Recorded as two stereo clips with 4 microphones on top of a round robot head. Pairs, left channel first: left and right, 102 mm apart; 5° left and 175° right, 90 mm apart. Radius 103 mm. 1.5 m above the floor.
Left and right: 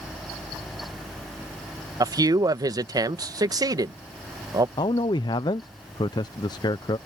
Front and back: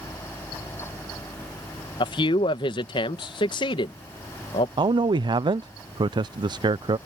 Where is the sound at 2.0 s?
35° right.